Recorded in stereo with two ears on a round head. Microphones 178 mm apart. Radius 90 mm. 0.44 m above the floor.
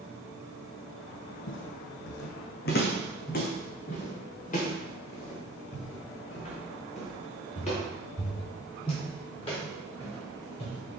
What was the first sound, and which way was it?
Footsteps, 65° left (ahead or behind).